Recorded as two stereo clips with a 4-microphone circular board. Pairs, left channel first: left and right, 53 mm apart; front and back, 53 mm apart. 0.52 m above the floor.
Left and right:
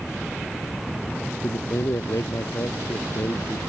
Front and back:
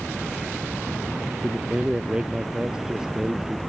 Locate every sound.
1.4 s a man speaking: 105° left